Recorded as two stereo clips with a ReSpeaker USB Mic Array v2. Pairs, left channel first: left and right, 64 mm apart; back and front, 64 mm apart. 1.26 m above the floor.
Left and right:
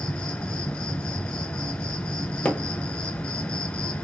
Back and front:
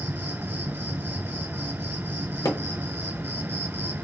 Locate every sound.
0.0 s an insect: 25° left, 1.2 m
2.5 s hammering: 160° left, 0.7 m